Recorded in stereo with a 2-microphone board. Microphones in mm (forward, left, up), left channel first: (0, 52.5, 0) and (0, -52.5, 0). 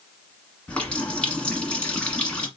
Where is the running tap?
10° left (ahead or behind), 1.1 m.